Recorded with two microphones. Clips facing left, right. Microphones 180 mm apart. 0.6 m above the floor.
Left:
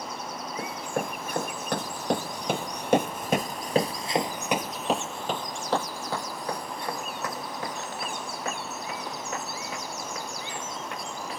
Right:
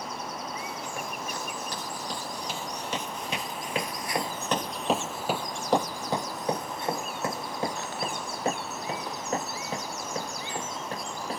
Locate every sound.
0.6 s running footsteps: 55° left (ahead or behind); by 11.4 s 35° right (ahead or behind)